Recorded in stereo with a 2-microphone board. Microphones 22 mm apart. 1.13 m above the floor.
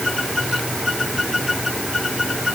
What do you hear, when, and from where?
Only background noise.